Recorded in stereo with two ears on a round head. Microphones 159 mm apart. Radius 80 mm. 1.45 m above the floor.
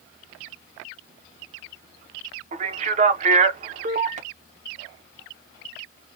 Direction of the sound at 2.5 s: 35° right (ahead or behind).